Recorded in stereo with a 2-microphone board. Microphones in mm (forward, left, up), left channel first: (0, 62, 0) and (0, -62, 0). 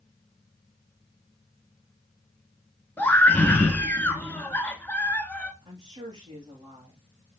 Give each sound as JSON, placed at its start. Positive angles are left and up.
{"t": 3.0, "sound": "a scream", "side_deg": 15, "distance_m": 1.3}
{"t": 5.6, "sound": "a woman speaking", "side_deg": -30, "distance_m": 5.0}